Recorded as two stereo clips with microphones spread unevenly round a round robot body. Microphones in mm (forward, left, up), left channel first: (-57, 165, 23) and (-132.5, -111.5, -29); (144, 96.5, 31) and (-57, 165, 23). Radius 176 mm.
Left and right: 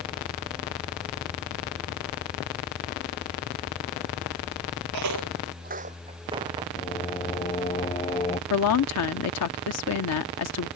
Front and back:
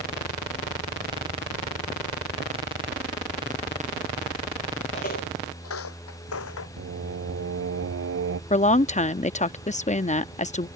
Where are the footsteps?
85° right; by 6.7 s 25° right.